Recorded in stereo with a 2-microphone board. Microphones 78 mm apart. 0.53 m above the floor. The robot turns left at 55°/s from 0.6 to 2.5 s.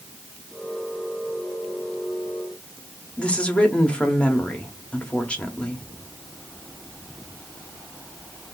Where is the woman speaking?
15° left (ahead or behind), 0.9 m.